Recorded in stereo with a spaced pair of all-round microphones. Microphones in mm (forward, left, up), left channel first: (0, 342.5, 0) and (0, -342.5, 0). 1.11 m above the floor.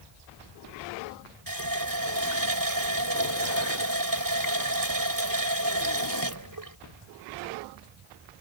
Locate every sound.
1.5 s a running tap: 30° right (ahead or behind)